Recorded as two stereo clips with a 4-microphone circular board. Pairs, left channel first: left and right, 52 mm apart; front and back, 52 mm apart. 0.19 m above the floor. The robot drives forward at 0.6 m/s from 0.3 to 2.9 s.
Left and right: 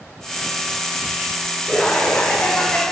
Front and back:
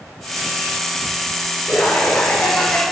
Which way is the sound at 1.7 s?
20° left.